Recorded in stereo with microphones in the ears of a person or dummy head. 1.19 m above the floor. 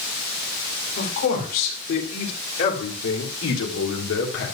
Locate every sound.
1.0 s a man speaking: 55° left (ahead or behind), 4 m; by 4.5 s 70° left (ahead or behind), 3 m